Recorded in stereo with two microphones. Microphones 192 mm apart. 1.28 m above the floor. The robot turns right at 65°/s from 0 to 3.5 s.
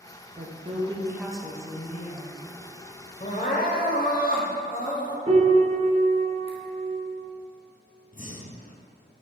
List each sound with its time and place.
0.4 s a woman speaking: 65° right, 0.8 m; by 2.4 s 65° left, 0.8 m
3.2 s crying: 35° left (ahead or behind), 0.9 m; by 5.2 s 45° left (ahead or behind), 0.9 m
5.3 s a piano: 30° right (ahead or behind), 0.8 m
8.1 s breathing: 45° left (ahead or behind), 0.6 m